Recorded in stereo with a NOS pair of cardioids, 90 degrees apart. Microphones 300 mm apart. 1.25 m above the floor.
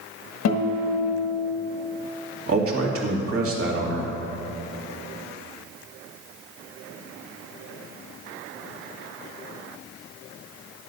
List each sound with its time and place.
0.5 s a guitar: 55° left, 1.4 m
2.5 s a man speaking: 45° right, 2 m